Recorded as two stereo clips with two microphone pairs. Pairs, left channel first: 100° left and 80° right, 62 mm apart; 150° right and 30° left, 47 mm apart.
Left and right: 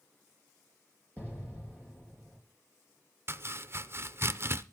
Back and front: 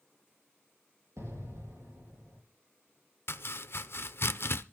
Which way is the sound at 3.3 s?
125° right.